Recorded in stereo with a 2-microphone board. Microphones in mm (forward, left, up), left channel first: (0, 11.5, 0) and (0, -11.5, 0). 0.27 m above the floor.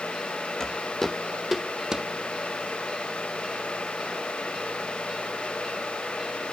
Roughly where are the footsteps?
Left.